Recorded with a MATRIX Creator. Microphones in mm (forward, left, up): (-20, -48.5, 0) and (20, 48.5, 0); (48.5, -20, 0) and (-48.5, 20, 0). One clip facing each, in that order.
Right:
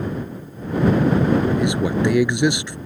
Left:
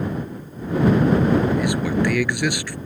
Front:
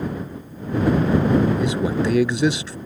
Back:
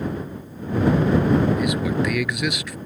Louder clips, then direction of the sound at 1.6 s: Right 1 dB, front 1 dB; 60° right.